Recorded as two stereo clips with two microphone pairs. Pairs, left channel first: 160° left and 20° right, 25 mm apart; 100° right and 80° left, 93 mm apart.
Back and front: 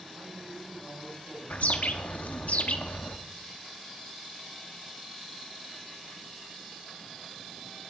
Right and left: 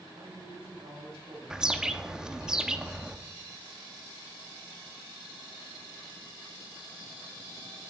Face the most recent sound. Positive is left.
turn(degrees=165)